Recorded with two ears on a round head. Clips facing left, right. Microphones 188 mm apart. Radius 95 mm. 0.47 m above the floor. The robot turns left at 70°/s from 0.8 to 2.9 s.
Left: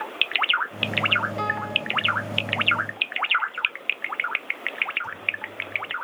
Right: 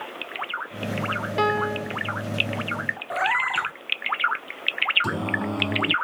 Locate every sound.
1.4 s a piano: 100° right; by 2.0 s 145° right
3.1 s a cat meowing: 90° right
5.0 s singing: 85° right